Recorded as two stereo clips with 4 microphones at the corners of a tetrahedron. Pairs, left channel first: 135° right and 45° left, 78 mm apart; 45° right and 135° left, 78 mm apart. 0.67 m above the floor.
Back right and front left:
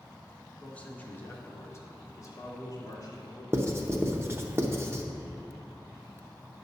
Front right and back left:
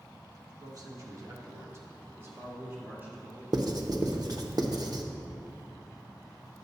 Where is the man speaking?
150° left, 1.4 m; by 3.4 s 160° right, 2.5 m.